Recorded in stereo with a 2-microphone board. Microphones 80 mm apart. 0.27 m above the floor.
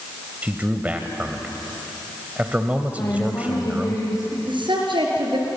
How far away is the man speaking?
About 1.4 m.